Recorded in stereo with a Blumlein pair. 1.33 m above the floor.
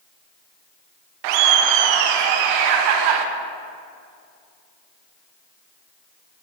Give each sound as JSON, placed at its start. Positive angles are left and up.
{"t": 1.2, "sound": "laughter", "azimuth_deg": -45, "distance_m": 0.7}